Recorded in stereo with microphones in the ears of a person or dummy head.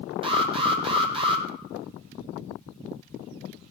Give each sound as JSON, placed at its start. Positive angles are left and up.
{"t": 0.2, "sound": "an alarm", "side_deg": -30, "distance_m": 2.5}